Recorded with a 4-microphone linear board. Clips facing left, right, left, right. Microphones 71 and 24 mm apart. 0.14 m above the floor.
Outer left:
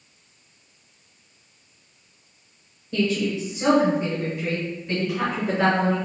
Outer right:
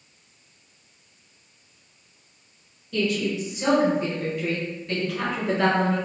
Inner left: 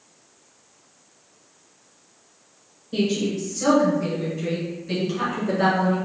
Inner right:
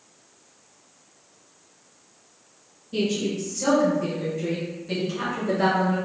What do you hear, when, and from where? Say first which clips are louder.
2.9 s a woman speaking: outer left 1 dB, inner left 2 dB; 25° left (ahead or behind), 1.9 m; by 6.0 s 5° left (ahead or behind), 2 m